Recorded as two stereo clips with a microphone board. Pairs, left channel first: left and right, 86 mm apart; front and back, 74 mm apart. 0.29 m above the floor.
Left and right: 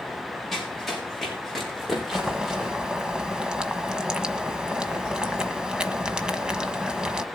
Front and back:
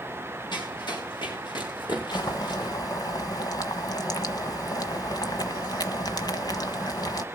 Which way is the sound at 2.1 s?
10° right.